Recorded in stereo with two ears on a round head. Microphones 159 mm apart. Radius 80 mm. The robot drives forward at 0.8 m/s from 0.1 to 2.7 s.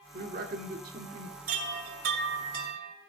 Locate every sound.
0.1 s a man speaking: 50° right (ahead or behind), 1.8 m
1.5 s a chime: 50° right (ahead or behind), 2.5 m; by 3.0 s 70° right (ahead or behind), 2 m